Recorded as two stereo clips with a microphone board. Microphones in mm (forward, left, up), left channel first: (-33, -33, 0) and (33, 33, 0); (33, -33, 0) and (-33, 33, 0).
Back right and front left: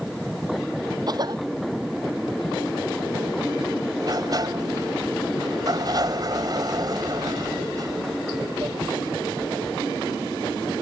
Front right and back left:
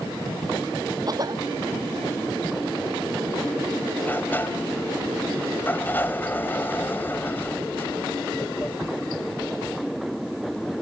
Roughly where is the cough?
Left.